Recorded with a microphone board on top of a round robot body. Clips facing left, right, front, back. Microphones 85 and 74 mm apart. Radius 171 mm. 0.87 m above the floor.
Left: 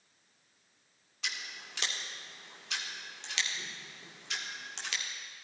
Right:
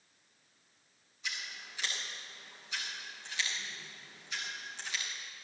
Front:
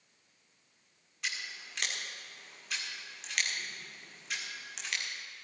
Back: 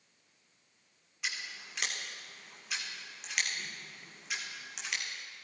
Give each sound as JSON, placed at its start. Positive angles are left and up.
{"t": 1.2, "sound": "scissors", "azimuth_deg": 95, "distance_m": 1.9}